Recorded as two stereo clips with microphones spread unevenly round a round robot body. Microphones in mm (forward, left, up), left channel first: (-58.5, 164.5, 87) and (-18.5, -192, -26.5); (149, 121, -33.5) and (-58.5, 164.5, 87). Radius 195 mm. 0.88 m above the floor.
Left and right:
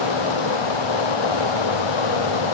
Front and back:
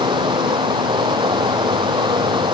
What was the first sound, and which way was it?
Running water, 100° left.